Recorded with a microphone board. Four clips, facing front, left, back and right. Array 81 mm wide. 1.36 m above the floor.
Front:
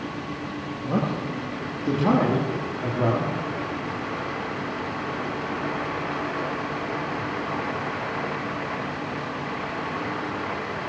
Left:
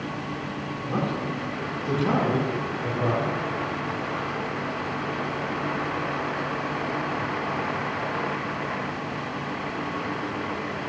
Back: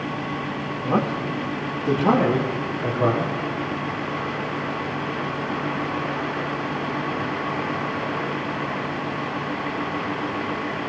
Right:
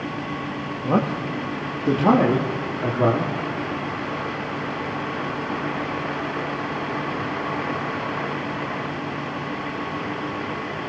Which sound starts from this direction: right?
A man speaking, at 0.8 s.